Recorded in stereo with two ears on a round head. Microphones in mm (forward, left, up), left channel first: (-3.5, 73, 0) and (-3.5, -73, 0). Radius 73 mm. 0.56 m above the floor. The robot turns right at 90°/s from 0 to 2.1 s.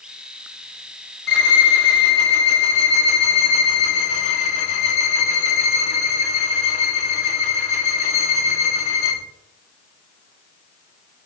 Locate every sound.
1.3 s a violin: 65° left, 0.6 m; by 9.2 s 135° left, 0.6 m